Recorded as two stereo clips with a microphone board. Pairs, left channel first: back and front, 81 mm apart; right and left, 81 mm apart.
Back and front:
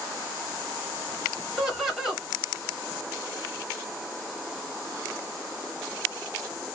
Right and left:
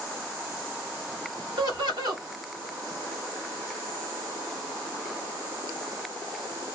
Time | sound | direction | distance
1.6 | laughter | 90° left | 1.5 m